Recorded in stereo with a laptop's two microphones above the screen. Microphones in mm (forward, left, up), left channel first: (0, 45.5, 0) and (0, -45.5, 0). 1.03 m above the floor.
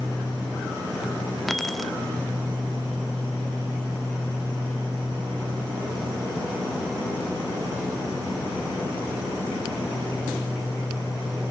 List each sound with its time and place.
1.5 s keys jangling: centre (ahead or behind), 1.3 m